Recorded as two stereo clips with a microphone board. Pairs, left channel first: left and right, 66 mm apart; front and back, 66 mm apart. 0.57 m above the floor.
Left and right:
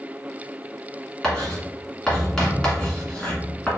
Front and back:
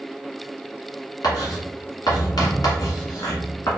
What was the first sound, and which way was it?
Writing, 10° left.